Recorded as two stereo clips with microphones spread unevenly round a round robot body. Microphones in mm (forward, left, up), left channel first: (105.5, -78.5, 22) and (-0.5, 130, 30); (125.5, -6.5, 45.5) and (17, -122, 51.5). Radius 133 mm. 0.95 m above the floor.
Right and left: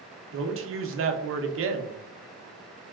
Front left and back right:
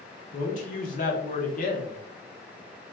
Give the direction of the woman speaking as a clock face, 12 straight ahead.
9 o'clock.